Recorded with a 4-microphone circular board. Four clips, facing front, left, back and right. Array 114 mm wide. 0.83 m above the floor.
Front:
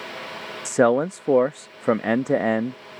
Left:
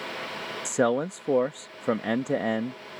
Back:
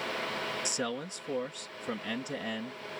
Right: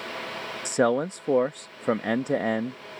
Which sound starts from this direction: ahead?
A man speaking, at 0.7 s.